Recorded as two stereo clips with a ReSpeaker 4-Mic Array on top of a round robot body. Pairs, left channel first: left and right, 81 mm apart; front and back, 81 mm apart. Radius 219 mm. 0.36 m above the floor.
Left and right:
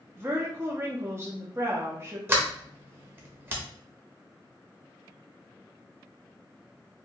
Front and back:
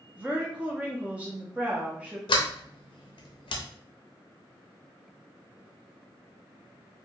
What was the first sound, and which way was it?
A woman speaking, 120° right.